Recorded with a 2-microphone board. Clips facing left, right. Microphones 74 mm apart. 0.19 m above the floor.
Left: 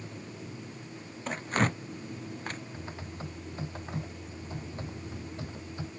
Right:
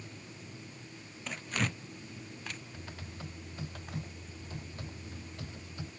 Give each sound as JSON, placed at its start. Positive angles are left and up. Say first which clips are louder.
{"t": 1.3, "sound": "tearing paper", "louder": "left 7 dB", "side_deg": 45}
{"t": 2.7, "sound": "typing on a keyboard", "louder": "left 5 dB", "side_deg": 25}